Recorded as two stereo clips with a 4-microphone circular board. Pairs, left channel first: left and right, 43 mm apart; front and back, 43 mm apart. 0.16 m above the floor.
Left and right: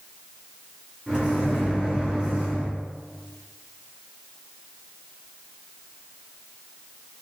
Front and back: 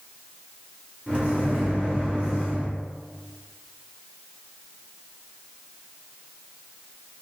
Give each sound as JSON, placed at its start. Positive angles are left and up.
{"t": 1.1, "sound": "a microwave", "azimuth_deg": -130, "distance_m": 1.8}